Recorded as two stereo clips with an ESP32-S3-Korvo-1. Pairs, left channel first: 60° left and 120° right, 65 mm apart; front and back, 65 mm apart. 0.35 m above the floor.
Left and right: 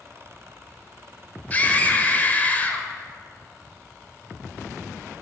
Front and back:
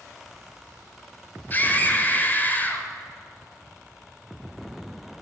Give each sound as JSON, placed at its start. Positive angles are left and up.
{"t": 1.5, "sound": "a scream", "azimuth_deg": 25, "distance_m": 1.3}